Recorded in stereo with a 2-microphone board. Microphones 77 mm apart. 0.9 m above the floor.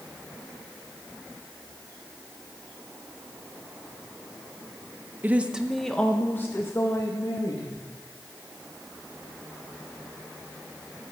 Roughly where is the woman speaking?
Right.